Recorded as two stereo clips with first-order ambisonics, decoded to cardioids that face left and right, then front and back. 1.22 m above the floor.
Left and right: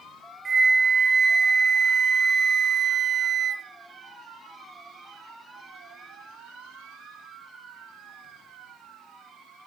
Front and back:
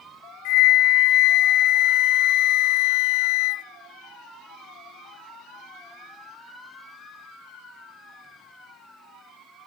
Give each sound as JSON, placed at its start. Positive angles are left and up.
{"t": 0.5, "sound": "a flute", "azimuth_deg": -20, "distance_m": 0.5}